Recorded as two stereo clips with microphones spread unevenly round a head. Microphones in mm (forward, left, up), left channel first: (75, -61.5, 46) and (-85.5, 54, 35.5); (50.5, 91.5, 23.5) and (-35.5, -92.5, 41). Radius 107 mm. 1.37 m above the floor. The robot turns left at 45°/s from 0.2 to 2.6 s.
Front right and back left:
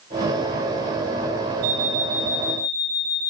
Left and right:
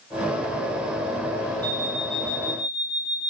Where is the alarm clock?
170° right, 2.5 m; by 3.3 s 150° left, 2.5 m.